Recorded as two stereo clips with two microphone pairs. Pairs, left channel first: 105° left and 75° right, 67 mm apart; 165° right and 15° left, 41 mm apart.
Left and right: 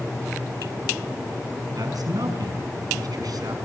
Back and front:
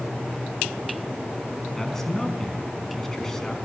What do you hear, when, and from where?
1.8 s a man speaking: 85° right, 4.5 m